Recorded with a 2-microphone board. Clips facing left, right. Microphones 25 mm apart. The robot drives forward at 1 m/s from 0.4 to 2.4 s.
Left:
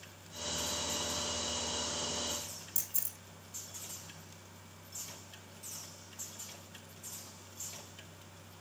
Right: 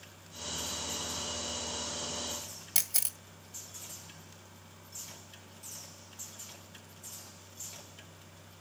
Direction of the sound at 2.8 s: 65° right (ahead or behind).